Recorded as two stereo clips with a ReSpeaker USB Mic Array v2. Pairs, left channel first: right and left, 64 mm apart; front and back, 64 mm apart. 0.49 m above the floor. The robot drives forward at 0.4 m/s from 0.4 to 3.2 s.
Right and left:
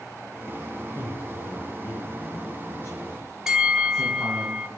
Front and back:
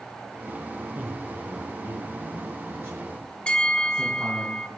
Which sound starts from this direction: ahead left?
A bell, at 3.5 s.